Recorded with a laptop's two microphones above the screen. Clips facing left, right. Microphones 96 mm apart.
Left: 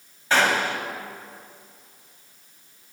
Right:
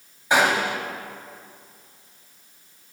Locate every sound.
0.3 s a gunshot: 15° right (ahead or behind), 3 m